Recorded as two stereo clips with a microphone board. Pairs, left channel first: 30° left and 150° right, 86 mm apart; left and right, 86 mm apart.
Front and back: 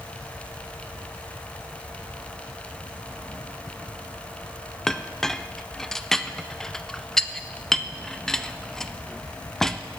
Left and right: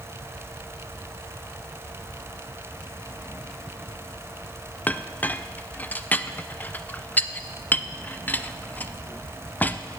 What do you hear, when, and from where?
4.9 s a clink: 105° left, 0.5 m